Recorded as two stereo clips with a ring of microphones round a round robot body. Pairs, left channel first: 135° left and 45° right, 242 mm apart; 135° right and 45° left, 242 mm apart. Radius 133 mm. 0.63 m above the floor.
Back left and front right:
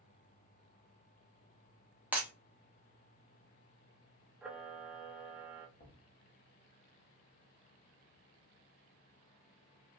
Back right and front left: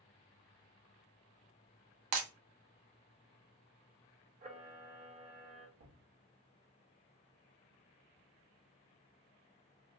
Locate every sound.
2.1 s breaking glass: 40° left, 0.7 m
4.4 s a camera shutter: 35° left, 0.8 m
5.8 s knocking: 75° left, 1.2 m